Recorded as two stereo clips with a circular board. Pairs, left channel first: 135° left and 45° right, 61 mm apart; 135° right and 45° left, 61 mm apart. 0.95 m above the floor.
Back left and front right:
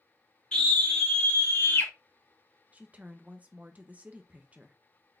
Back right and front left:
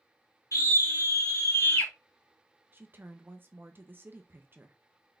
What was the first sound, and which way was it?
A scream, 150° right.